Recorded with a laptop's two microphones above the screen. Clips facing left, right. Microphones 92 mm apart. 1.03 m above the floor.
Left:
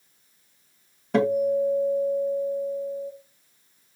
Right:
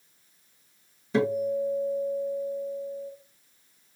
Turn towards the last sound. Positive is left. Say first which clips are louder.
# left 4 dB
turn(degrees=60)  # may be behind; listen again after turning